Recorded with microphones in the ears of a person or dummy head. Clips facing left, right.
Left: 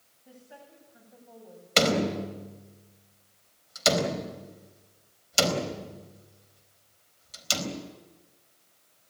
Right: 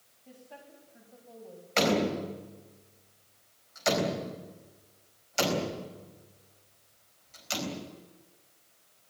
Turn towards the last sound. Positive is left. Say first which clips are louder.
# left 1 dB
turn(degrees=55)  # may be behind; listen again after turning